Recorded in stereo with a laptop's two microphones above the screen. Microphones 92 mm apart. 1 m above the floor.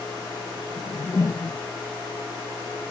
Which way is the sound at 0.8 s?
40° left (ahead or behind).